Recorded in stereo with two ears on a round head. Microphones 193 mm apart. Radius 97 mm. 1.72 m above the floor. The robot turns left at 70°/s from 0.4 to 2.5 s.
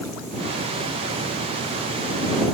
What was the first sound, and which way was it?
Only background noise.